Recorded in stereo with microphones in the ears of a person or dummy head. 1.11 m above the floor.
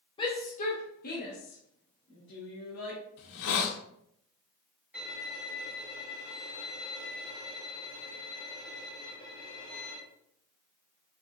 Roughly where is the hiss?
Left.